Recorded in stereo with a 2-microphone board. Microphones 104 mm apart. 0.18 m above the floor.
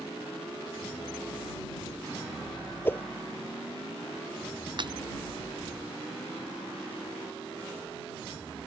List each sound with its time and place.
2.9 s a whoosh: 20° left (ahead or behind)
4.8 s breaking glass: 50° right (ahead or behind)